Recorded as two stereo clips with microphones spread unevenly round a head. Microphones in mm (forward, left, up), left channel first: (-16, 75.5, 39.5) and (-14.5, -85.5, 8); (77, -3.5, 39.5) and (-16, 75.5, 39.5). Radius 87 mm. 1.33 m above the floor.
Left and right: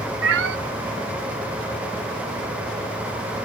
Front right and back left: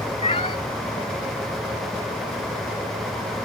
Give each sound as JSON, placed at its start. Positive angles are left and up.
{"t": 0.2, "sound": "a cat meowing", "azimuth_deg": -100}